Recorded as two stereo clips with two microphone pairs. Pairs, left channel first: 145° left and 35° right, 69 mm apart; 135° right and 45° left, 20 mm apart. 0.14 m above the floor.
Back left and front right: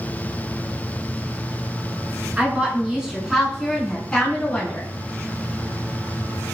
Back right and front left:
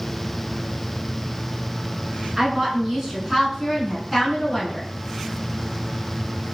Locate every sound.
2.4 s a woman speaking: 5° right, 1.3 m; by 4.9 s 170° left, 1.3 m